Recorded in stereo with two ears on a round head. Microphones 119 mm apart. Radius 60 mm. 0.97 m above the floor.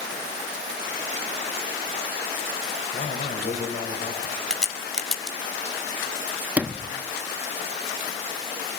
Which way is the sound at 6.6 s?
10° right (ahead or behind).